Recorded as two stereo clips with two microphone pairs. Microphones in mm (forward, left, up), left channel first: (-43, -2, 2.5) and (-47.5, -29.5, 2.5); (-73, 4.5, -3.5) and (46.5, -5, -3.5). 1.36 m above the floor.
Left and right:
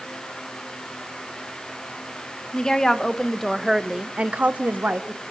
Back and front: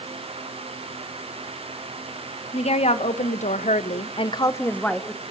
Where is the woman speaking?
145° left, 2 m; by 5.2 s 95° right, 1.6 m.